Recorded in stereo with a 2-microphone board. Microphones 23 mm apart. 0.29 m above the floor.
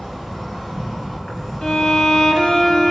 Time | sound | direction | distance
0.0 | an insect | 50° left (ahead or behind) | 3.5 m
1.6 | a violin | 35° left (ahead or behind) | 1.3 m